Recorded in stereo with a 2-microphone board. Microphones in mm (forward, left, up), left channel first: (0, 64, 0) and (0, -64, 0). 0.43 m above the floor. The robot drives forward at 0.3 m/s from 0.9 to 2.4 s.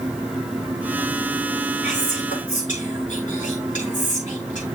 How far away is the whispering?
About 7.5 m.